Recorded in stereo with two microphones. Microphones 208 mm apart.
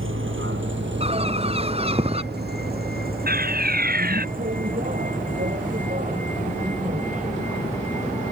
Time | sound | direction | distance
0.0 | a vehicle | 75° right (ahead or behind) | ?
1.0 | a bird | 30° right (ahead or behind) | ?
3.3 | a fire alarm | 45° right (ahead or behind) | ?